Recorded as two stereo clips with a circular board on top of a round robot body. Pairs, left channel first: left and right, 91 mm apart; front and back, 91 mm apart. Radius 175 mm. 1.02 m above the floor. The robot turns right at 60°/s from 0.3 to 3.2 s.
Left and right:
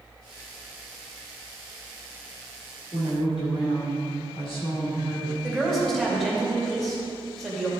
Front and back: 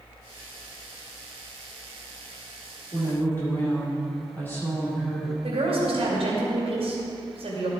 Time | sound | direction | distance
2.9 | a woman speaking | 50° left | 3.5 m
5.4 | a woman speaking | straight behind | 2.5 m